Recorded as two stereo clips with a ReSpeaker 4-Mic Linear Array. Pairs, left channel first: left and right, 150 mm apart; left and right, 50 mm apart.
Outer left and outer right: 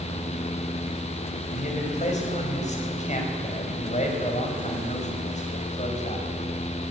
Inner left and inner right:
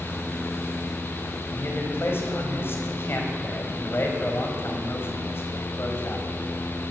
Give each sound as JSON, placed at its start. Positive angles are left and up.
{"t": 1.5, "sound": "a man speaking", "side_deg": 50, "distance_m": 5.0}